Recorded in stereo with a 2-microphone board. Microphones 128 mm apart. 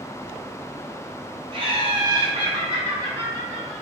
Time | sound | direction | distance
1.5 | laughter | 40° right (ahead or behind) | 1.1 m